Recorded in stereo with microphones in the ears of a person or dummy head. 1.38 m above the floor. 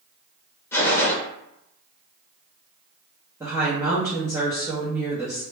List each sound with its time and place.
0.7 s a gunshot: 10° left (ahead or behind), 0.6 m
3.4 s a woman speaking: 15° right (ahead or behind), 0.6 m